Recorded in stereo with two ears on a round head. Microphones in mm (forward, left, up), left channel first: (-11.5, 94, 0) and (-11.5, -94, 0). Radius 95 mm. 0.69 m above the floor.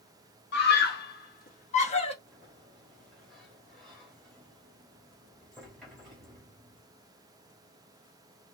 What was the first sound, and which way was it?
A scream, 55° left (ahead or behind).